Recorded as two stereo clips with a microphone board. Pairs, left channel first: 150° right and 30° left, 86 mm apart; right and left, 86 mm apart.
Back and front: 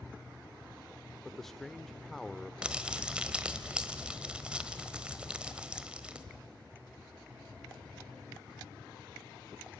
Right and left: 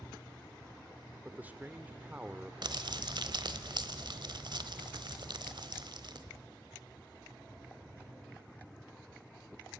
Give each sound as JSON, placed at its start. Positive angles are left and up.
{"t": 1.2, "sound": "a man speaking", "azimuth_deg": 125, "distance_m": 0.8}
{"t": 2.6, "sound": "crumpling", "azimuth_deg": 105, "distance_m": 1.2}